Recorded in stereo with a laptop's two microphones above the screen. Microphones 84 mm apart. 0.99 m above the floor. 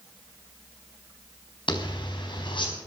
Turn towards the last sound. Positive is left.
turn(degrees=70)  # may be behind; listen again after turning